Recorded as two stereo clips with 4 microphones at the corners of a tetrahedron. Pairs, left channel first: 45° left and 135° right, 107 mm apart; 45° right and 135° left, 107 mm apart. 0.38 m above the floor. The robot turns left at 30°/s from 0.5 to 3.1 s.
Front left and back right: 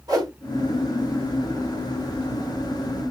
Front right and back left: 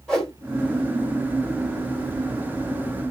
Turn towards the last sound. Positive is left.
turn(degrees=160)